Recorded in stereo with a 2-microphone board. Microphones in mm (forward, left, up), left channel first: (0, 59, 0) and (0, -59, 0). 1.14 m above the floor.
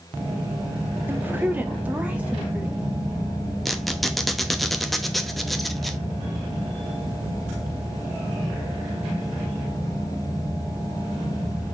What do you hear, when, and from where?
1.1 s a woman speaking: 15° right (ahead or behind), 0.8 m; by 2.8 s 10° right (ahead or behind), 2.5 m
3.6 s a squeak: centre (ahead or behind), 0.7 m